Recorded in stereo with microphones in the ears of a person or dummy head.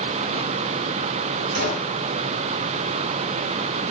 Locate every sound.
1.6 s a gunshot: 60° right (ahead or behind), 5.5 m